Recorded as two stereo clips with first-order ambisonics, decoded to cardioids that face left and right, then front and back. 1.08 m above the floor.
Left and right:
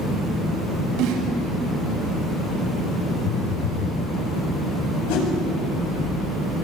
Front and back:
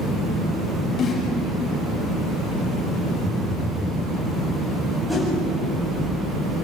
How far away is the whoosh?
About 8.5 m.